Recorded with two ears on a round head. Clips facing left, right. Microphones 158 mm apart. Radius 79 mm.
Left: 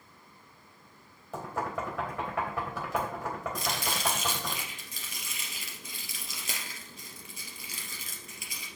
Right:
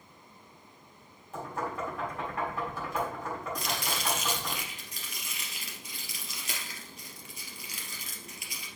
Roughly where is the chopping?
Left.